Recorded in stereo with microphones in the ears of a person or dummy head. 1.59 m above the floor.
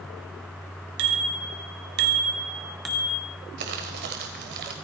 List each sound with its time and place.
1.0 s a bicycle bell: 65° right (ahead or behind), 2.5 m; by 3.2 s 40° left (ahead or behind), 0.8 m
3.6 s crumpling: 55° right (ahead or behind), 2 m